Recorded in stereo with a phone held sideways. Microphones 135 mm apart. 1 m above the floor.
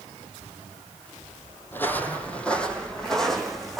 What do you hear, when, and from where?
1.7 s footsteps: 15° left (ahead or behind), 2.5 m; by 3.8 s centre (ahead or behind), 4 m